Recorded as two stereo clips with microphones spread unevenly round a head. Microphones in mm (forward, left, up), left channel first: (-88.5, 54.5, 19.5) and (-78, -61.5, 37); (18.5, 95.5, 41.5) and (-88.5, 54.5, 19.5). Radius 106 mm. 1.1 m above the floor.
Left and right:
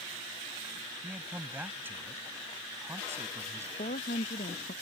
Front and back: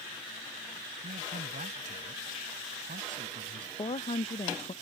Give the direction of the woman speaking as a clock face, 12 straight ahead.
10 o'clock.